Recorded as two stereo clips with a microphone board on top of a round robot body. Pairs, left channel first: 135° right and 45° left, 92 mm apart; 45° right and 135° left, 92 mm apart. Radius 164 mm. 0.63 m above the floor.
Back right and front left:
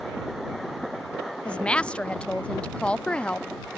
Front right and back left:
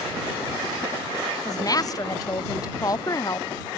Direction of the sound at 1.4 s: 60° right.